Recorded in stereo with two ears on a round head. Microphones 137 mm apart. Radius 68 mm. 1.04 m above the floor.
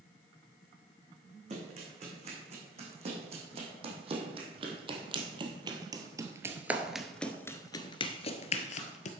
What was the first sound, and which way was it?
Running footsteps, 45° right (ahead or behind).